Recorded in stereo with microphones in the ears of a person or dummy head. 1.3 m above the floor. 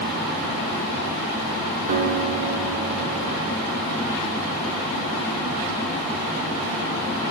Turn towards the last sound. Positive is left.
turn(degrees=-40)  # may be behind; listen again after turning